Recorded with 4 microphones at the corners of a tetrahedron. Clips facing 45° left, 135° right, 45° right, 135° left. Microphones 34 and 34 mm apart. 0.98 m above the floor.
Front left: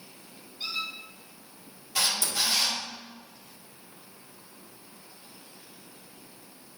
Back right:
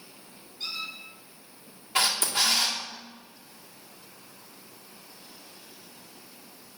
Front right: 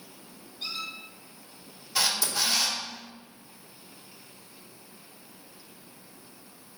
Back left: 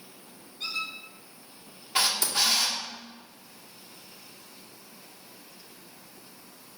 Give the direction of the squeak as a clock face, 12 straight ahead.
8 o'clock.